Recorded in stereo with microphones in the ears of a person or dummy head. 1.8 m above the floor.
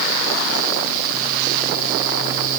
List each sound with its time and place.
Only background noise.